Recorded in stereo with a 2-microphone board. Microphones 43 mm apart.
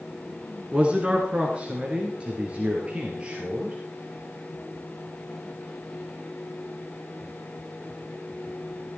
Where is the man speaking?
30° right (ahead or behind), 2 m.